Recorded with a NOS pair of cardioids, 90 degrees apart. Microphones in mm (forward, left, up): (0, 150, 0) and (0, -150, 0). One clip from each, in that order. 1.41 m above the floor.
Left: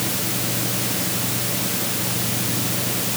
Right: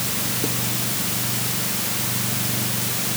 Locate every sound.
Only background noise.